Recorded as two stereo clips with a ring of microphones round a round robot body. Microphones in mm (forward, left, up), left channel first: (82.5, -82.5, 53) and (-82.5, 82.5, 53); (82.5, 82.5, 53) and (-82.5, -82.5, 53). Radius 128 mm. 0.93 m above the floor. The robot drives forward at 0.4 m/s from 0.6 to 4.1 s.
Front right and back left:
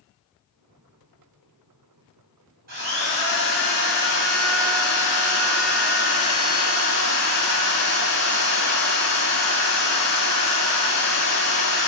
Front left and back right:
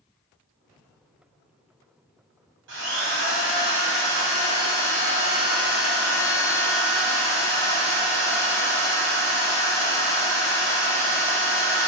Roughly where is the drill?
Behind.